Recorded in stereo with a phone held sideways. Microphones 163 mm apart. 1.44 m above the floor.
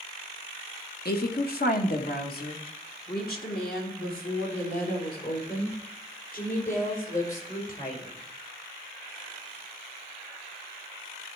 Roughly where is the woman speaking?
Left.